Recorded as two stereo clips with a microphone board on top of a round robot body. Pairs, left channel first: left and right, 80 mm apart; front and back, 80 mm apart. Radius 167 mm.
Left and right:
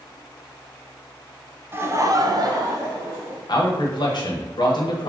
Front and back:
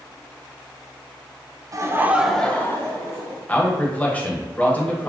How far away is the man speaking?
About 1.3 m.